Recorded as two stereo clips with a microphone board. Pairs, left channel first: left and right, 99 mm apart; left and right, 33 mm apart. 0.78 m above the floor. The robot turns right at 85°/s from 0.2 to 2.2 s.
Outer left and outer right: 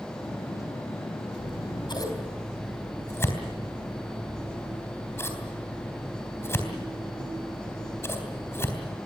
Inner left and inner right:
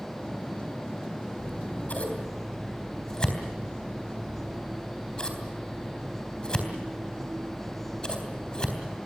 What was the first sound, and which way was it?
Scissors, 85° left.